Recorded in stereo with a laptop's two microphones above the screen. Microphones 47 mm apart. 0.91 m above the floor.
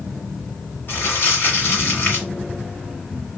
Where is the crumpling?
50° left (ahead or behind), 1.4 m.